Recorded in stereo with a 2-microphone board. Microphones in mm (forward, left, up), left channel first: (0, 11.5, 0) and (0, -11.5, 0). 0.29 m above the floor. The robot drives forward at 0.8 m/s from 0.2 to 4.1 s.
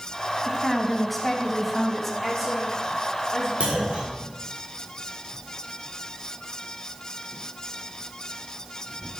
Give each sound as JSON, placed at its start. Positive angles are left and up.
{"t": 0.4, "sound": "a woman speaking", "side_deg": 5, "distance_m": 2.5}
{"t": 2.2, "sound": "a woman speaking", "side_deg": -10, "distance_m": 6.5}
{"t": 3.6, "sound": "a clunk", "side_deg": -60, "distance_m": 5.5}